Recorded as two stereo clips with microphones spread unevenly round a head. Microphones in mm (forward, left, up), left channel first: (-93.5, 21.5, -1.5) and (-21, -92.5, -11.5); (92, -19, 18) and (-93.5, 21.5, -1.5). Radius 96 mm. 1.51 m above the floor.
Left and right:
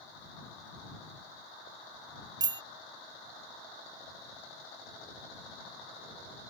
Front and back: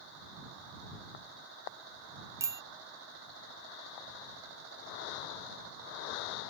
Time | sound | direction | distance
2.4 | a bicycle bell | 115° right | ?